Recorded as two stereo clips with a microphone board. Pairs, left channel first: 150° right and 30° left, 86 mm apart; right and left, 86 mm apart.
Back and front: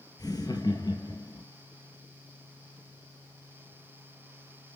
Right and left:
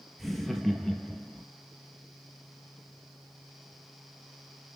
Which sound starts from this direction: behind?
Laughter, at 0.2 s.